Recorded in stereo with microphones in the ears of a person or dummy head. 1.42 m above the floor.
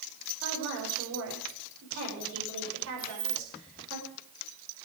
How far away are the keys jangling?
About 5.5 m.